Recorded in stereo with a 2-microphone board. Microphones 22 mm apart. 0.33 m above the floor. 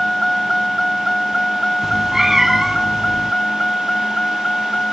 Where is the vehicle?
5° left (ahead or behind); by 4.9 s 45° left (ahead or behind).